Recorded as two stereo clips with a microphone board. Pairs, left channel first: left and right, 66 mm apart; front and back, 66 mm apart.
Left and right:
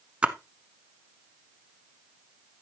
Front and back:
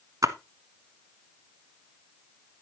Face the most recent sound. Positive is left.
turn(degrees=-160)